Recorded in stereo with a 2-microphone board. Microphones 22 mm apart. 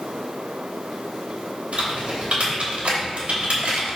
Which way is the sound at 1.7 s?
65° right (ahead or behind).